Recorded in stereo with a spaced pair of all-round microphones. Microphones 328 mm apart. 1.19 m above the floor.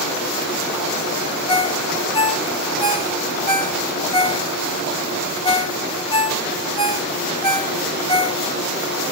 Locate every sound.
1.5 s a ringtone: 15° left (ahead or behind), 2 m